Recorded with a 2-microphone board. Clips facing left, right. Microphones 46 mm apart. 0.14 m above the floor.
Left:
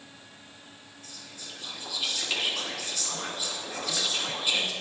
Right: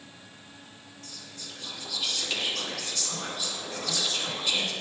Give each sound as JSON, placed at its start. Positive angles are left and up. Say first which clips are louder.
{"t": 1.0, "sound": "whispering", "louder": "even", "side_deg": 10, "distance_m": 1.0}